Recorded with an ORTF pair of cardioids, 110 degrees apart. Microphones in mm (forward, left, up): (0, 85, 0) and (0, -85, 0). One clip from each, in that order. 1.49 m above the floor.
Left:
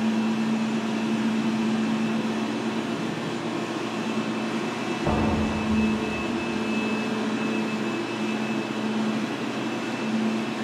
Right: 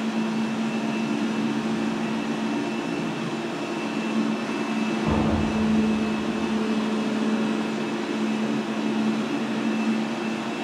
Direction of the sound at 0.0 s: 15° left.